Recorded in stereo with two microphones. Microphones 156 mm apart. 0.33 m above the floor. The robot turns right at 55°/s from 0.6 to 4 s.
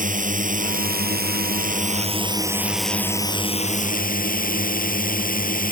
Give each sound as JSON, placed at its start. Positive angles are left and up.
{"t": 0.0, "sound": "a drone", "azimuth_deg": -120}